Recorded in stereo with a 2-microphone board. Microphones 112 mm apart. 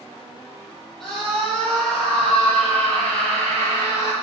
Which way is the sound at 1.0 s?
5° left (ahead or behind).